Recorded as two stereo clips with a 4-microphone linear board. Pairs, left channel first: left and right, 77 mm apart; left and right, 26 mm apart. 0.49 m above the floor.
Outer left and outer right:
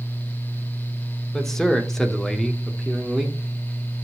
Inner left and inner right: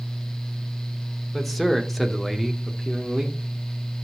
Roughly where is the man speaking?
Centre.